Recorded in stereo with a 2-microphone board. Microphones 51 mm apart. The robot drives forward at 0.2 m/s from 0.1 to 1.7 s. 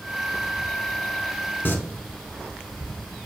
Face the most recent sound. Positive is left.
turn(degrees=45)  # may be behind; listen again after turning